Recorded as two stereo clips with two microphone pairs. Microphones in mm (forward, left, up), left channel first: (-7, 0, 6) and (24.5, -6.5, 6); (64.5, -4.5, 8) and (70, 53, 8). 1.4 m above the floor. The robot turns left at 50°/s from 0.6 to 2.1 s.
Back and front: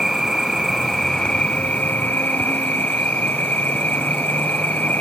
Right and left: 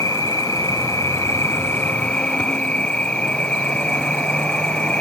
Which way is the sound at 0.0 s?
95° right.